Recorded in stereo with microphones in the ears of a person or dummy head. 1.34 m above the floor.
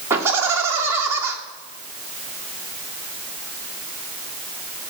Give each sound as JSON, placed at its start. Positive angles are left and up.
{"t": 0.1, "sound": "laughter", "side_deg": -10, "distance_m": 1.6}